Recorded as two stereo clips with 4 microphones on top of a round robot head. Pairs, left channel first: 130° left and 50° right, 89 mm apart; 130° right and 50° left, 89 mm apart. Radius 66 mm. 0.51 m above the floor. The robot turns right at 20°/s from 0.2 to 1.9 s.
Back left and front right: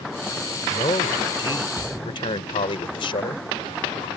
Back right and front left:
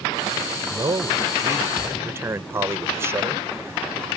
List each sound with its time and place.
0.6 s a man speaking: 85° left; by 4.1 s 110° left